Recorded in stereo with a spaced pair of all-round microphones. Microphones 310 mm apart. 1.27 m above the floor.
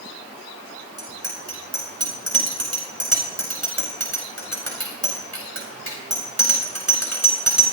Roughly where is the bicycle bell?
Right.